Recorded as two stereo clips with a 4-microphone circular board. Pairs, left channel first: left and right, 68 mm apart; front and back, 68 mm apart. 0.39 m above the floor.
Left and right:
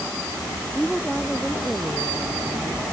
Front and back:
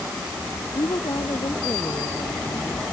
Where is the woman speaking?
Straight ahead.